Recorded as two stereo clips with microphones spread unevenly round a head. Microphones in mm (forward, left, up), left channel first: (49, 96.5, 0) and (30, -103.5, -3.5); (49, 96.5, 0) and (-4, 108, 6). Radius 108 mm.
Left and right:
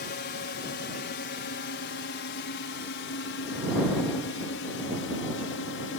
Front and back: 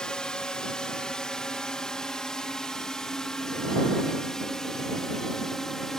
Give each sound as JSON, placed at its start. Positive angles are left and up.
{"t": 0.0, "sound": "a drone", "azimuth_deg": 60}